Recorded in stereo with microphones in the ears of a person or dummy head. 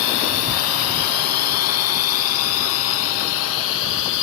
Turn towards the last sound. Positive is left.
turn(degrees=75)  # may be behind; listen again after turning